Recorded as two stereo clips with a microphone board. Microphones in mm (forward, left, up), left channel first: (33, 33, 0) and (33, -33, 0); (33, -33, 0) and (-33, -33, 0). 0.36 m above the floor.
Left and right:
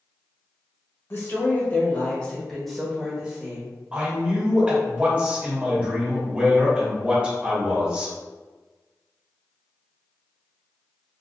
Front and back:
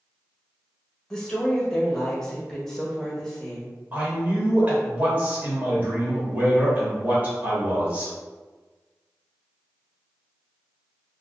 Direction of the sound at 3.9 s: 140° right.